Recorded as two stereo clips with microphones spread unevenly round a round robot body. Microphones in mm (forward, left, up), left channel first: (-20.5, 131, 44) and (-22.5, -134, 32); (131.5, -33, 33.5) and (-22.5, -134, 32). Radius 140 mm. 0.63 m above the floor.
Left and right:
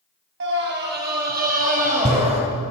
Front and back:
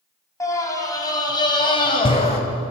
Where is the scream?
40° right, 4 m; by 2.4 s 25° right, 3.5 m.